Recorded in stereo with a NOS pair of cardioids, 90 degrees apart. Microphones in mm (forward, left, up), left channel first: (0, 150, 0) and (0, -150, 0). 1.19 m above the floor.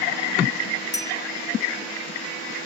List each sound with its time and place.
0.9 s a bell: 10° left